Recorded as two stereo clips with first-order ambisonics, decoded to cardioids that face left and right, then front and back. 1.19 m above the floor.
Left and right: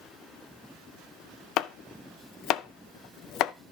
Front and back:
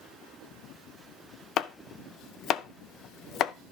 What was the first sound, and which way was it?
Chopping, 50° left.